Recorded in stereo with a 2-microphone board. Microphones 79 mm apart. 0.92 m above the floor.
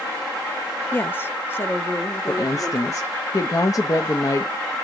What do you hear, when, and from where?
0.9 s a woman speaking: 25° left (ahead or behind), 0.5 m; by 3.1 s 30° left (ahead or behind), 1.9 m
2.3 s a woman speaking: 45° left (ahead or behind), 0.8 m